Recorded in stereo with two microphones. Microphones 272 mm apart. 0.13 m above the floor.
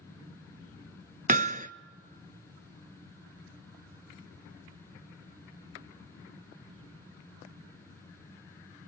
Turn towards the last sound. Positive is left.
turn(degrees=-30)  # may be behind; listen again after turning